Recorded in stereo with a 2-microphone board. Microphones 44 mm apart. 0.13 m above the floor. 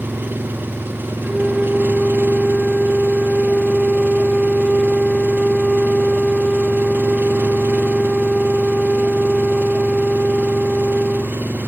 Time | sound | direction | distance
0.0 | an engine running | 50° right (ahead or behind) | ?
1.2 | a flute | 5° left (ahead or behind) | ?